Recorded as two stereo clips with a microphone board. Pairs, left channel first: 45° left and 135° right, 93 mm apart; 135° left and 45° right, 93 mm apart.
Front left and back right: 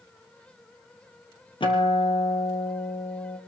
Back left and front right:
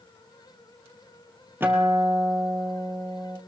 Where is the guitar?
20° left, 2.5 m.